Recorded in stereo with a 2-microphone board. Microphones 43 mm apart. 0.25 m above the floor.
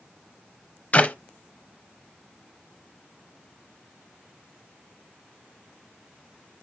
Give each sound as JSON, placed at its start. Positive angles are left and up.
{"t": 0.9, "sound": "a clap", "side_deg": 35, "distance_m": 0.8}